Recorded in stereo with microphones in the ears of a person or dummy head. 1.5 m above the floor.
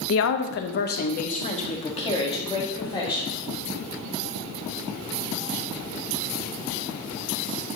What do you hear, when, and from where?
0.1 s a woman speaking: 70° left (ahead or behind), 0.7 m; by 3.4 s 25° left (ahead or behind), 2.5 m